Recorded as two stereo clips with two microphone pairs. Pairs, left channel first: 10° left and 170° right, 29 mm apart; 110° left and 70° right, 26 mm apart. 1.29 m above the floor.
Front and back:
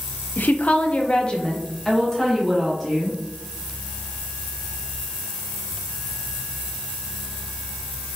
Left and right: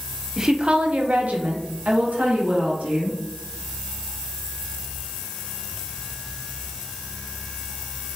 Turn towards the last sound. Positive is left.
turn(degrees=-75)